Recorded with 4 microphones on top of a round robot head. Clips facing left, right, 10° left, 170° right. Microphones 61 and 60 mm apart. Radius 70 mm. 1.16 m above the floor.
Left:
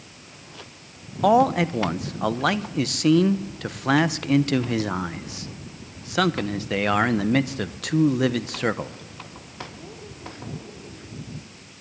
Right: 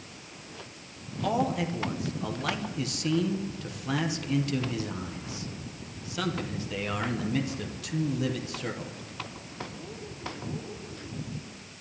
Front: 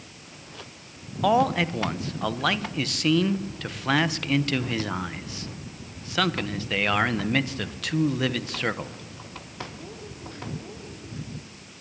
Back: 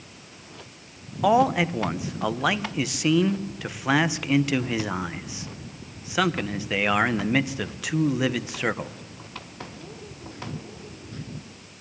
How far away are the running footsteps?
I don't hear running footsteps.